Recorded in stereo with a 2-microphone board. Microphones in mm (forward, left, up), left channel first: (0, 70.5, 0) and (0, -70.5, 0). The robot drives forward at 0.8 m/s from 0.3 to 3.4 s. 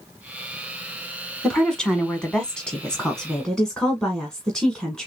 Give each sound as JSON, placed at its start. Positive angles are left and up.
{"t": 1.4, "sound": "a woman speaking", "side_deg": 5, "distance_m": 1.4}